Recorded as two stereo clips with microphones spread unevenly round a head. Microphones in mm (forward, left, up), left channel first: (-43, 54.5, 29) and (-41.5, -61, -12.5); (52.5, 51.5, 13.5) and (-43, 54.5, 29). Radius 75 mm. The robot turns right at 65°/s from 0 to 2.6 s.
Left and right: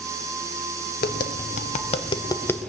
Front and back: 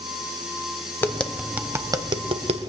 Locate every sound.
1.0 s tapping: 65° left, 0.9 m; by 2.7 s 170° left, 0.9 m